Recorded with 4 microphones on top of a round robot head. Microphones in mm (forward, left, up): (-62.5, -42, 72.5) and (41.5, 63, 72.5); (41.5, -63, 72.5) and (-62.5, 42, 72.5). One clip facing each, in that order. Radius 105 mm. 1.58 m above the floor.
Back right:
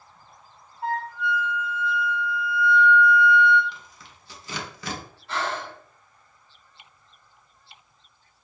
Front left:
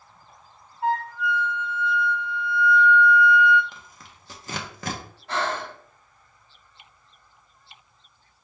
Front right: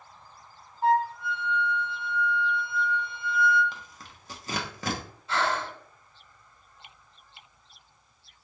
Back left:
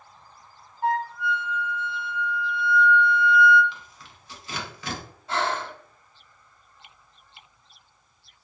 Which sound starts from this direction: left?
Breathing, at 5.3 s.